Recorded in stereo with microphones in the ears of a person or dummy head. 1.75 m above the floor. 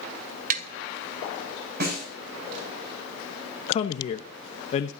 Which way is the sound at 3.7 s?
35° left (ahead or behind).